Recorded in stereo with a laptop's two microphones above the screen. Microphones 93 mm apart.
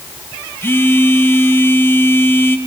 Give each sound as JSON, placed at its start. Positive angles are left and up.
{"t": 0.6, "sound": "a phone buzzing", "side_deg": 25, "distance_m": 1.1}